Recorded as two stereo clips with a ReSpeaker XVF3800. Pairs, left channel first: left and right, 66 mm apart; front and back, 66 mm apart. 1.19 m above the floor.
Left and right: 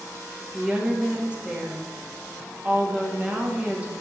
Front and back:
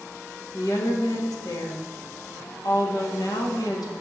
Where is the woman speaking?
20° right, 2.0 m.